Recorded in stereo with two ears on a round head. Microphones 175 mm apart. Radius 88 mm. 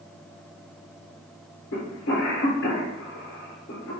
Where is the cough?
65° left (ahead or behind), 1.2 m.